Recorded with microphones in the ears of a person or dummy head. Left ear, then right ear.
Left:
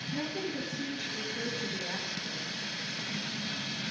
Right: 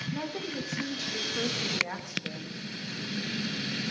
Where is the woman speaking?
55° right (ahead or behind), 2.5 m.